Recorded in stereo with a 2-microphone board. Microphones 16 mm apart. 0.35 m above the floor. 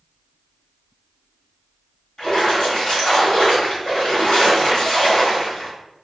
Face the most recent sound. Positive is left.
turn(degrees=50)  # may be behind; listen again after turning